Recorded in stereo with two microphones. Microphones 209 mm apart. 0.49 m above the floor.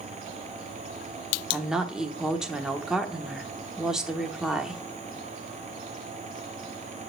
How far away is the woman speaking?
About 0.8 m.